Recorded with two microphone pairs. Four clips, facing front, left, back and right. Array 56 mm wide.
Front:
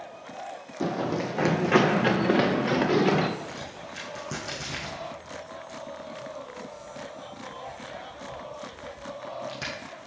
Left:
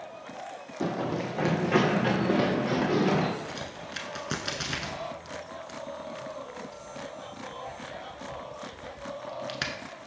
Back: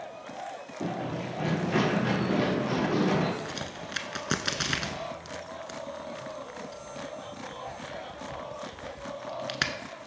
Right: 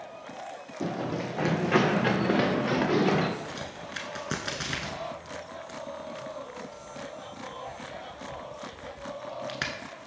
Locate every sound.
0.8 s running footsteps: 50° left, 0.6 m; by 3.3 s 30° right, 2 m
3.4 s a crack: 160° right, 0.6 m